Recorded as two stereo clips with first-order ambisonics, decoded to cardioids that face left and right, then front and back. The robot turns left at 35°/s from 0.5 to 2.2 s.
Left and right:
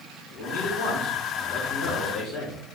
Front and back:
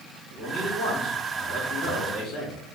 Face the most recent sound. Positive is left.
turn(degrees=40)